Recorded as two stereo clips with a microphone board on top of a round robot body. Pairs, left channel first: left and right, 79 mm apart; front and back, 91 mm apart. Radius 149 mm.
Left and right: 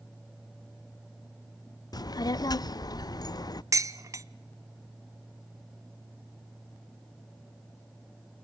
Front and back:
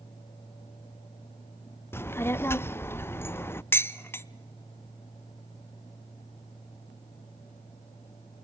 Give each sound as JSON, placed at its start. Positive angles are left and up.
{"t": 1.9, "sound": "a child speaking", "azimuth_deg": 60, "distance_m": 0.6}
{"t": 3.7, "sound": "dishes clattering", "azimuth_deg": -55, "distance_m": 0.8}